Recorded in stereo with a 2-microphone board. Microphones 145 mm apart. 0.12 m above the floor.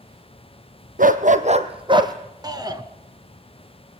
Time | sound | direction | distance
1.0 | a dog barking | 75° right (ahead or behind) | 1.5 m
2.4 | a shout | 30° right (ahead or behind) | 1.6 m